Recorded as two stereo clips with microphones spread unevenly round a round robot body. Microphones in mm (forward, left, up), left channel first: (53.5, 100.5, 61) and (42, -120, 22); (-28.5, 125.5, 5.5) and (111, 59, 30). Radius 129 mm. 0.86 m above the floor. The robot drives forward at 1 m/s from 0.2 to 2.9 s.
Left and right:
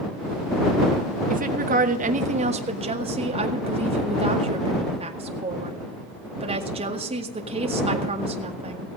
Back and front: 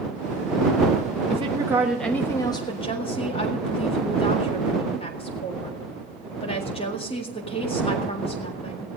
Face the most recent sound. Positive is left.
turn(degrees=-150)